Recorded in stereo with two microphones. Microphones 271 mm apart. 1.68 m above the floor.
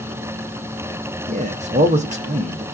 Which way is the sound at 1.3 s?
25° right (ahead or behind).